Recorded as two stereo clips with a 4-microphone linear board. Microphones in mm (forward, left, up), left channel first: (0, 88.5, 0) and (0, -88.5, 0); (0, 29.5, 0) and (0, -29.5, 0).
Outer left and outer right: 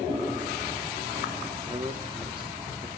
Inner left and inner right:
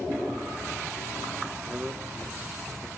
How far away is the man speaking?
About 2 m.